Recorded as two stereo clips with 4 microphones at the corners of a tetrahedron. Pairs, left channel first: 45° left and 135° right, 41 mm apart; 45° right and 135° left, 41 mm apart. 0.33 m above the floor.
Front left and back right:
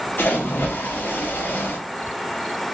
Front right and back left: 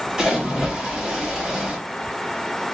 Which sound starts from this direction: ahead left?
A splash, at 0.2 s.